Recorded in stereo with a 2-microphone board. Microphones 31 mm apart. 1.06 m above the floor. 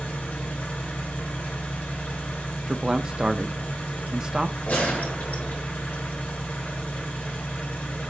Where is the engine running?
75° left (ahead or behind), 3 m.